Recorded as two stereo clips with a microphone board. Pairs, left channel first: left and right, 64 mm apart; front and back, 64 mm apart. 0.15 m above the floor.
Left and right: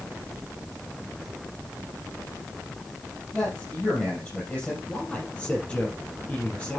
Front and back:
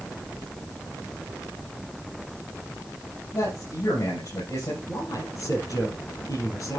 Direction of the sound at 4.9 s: 20° left.